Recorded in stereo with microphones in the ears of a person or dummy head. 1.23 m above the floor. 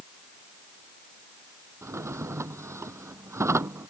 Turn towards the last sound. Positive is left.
turn(degrees=-15)  # may be behind; listen again after turning